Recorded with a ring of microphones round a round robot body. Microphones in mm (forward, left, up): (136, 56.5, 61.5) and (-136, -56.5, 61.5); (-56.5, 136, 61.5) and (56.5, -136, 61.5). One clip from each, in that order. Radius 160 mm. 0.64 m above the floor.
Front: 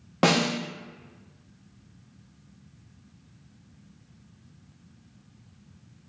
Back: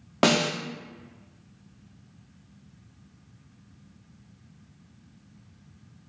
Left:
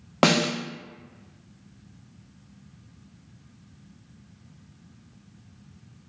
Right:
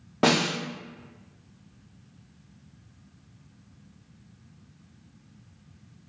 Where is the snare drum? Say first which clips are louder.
Even, left 2 dB; 130° left, 1.0 m.